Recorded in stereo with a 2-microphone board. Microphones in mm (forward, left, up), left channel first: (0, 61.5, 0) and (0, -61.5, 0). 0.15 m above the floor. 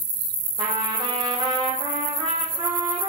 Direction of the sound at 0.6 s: 35° right (ahead or behind).